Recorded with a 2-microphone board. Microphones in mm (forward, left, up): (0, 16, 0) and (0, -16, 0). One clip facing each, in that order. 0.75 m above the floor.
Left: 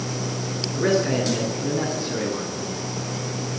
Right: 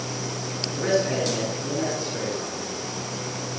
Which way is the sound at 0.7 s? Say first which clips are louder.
Left 2 dB; 15° left (ahead or behind).